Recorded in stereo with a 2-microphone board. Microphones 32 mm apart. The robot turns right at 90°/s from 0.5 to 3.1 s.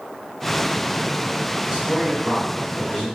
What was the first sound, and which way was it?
A man speaking, 20° right (ahead or behind).